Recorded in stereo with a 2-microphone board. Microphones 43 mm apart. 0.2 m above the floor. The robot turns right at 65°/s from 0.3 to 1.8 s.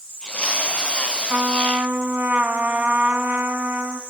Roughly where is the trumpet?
Behind right.